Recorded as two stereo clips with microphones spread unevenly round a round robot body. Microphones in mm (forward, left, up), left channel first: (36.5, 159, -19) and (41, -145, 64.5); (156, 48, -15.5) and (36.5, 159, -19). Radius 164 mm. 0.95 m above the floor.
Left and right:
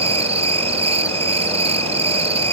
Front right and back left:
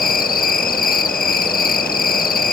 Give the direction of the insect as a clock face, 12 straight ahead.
12 o'clock.